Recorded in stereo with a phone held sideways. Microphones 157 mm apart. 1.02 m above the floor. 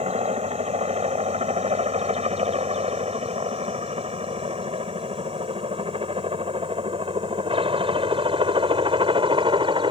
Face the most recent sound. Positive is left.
turn(degrees=-30)  # may be behind; listen again after turning